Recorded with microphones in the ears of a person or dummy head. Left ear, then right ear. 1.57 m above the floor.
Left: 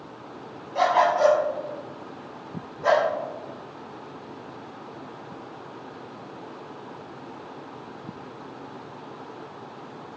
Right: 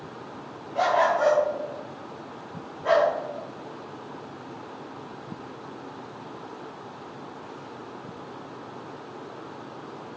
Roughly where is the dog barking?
Centre.